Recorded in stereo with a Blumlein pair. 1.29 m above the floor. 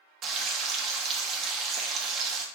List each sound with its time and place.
0.2 s frying: 30° right, 0.9 m